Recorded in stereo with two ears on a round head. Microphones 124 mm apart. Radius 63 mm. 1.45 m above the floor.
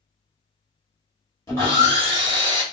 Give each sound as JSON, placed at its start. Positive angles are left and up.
{"t": 1.5, "sound": "sawing", "side_deg": 25, "distance_m": 1.4}